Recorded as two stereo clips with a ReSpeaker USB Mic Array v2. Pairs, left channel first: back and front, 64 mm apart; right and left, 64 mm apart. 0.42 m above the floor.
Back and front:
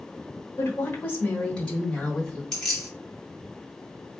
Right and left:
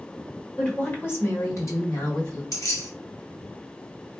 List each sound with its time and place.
0.6 s a woman speaking: 155° right, 1.4 m; by 2.4 s 100° right, 2.5 m
2.5 s keys jangling: 100° right, 1.7 m